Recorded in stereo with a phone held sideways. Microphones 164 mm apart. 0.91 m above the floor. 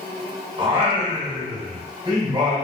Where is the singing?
30° right (ahead or behind), 0.9 m.